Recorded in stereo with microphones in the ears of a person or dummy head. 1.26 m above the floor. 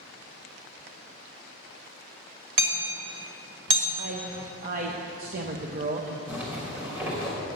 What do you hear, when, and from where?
2.6 s hammering: 55° right (ahead or behind), 1.8 m
4.0 s a man speaking: 45° right (ahead or behind), 0.7 m
6.3 s a zipper: 10° right (ahead or behind), 3 m